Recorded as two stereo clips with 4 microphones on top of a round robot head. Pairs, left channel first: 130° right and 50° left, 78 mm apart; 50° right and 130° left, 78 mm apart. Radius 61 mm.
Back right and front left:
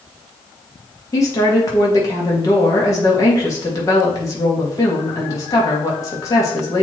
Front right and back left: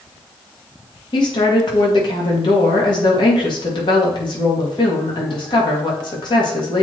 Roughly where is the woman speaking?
Right.